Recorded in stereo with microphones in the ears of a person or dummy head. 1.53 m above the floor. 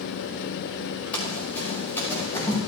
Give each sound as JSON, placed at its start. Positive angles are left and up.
{"t": 1.1, "sound": "running footsteps", "side_deg": 10, "distance_m": 5.0}